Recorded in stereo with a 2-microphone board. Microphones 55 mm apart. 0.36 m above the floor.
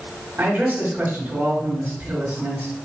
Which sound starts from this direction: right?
A man speaking, at 0.4 s.